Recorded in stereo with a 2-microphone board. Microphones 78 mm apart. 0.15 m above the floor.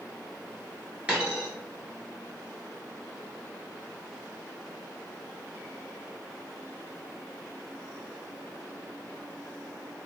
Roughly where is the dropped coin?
Centre.